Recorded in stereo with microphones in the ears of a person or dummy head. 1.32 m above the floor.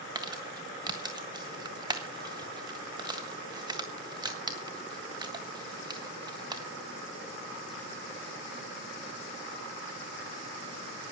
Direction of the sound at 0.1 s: 20° right (ahead or behind).